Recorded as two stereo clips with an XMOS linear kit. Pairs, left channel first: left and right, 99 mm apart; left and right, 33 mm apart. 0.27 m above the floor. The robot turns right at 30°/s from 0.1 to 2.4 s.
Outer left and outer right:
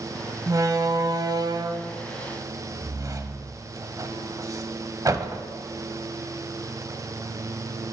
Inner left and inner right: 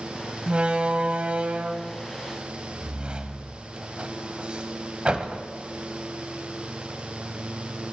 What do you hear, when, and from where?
0.5 s a door slam: 35° right (ahead or behind), 1.1 m